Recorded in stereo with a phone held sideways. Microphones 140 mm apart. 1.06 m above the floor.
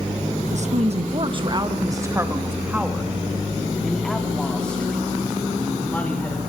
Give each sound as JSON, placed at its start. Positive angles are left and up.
{"t": 0.5, "sound": "a woman speaking", "side_deg": -55, "distance_m": 1.6}